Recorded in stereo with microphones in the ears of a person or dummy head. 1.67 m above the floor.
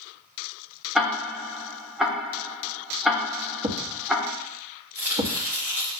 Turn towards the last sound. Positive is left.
turn(degrees=-15)  # may be behind; listen again after turning